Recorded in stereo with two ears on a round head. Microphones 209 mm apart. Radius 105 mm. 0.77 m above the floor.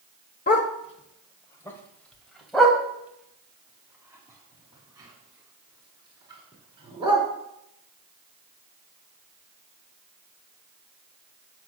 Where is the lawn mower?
No lawn mower in this recording.